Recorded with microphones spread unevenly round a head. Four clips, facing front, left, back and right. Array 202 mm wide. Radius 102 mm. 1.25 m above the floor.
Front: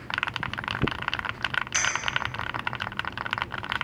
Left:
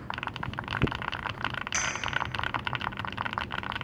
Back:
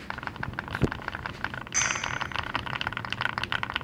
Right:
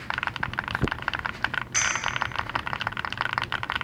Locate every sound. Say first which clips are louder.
1.7 s a clink: right 3 dB, front 2 dB; 95° left, 2.5 m